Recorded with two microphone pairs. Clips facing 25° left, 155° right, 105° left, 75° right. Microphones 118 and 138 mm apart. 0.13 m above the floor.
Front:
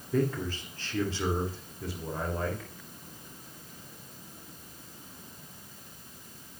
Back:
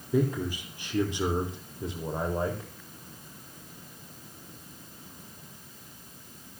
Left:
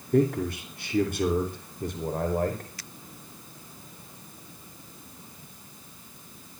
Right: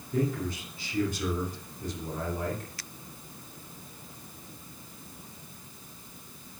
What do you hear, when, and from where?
0.1 s a man speaking: 130° left, 5 m; by 2.7 s 145° left, 5.5 m